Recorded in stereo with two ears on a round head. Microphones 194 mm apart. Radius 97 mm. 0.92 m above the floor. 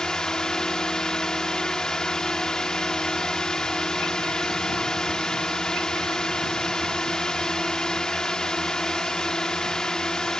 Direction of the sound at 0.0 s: 5° left (ahead or behind).